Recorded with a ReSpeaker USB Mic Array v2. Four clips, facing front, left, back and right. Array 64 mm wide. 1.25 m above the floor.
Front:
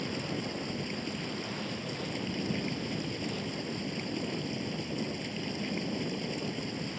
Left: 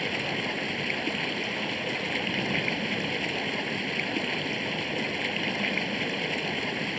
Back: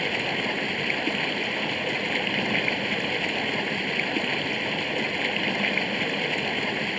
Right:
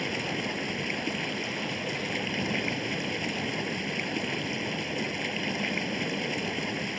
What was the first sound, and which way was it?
Running water, 170° left.